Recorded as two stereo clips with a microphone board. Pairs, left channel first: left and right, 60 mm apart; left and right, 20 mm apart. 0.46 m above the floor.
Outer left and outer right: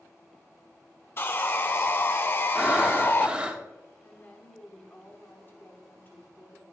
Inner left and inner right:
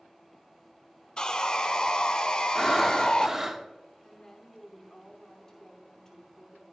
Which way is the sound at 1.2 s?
40° left (ahead or behind).